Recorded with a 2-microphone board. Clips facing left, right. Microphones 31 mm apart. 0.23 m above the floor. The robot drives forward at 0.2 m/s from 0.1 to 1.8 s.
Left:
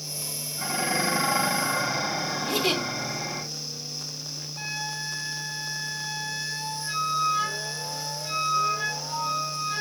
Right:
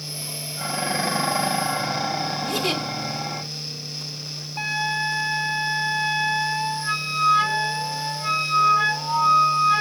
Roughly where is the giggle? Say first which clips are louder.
Left 1 dB; centre.